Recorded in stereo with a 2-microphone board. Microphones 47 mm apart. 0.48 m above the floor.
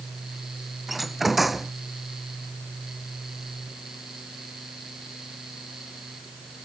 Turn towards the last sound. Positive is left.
turn(degrees=-5)  # may be behind; listen again after turning